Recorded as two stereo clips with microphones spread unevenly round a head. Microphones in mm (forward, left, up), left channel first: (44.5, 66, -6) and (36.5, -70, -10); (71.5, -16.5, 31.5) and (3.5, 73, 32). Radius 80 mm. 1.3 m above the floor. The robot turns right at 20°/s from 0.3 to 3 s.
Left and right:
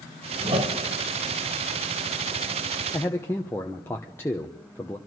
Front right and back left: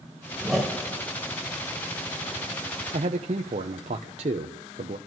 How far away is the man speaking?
About 0.7 m.